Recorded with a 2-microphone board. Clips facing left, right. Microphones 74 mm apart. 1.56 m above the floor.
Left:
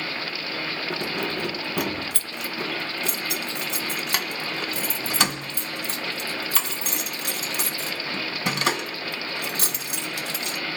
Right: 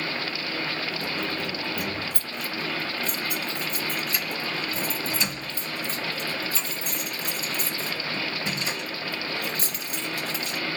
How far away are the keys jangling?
About 1.4 m.